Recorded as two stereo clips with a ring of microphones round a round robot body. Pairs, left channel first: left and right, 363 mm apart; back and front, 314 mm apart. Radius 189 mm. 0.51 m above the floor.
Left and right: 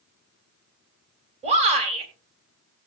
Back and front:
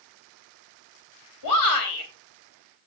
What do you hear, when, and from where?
1.4 s a shout: 160° right, 3.5 m